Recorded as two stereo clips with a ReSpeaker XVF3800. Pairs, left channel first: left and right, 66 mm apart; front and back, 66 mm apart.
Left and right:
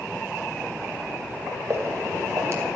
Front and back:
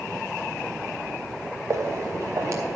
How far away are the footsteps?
About 1.5 m.